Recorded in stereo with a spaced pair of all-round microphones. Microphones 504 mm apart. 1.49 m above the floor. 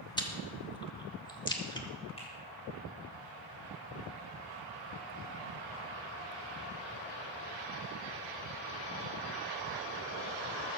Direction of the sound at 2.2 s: 10° left (ahead or behind).